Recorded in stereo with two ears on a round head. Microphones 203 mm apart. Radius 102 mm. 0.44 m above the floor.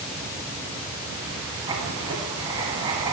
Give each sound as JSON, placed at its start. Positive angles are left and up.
{"t": 1.7, "sound": "writing", "side_deg": -20, "distance_m": 1.4}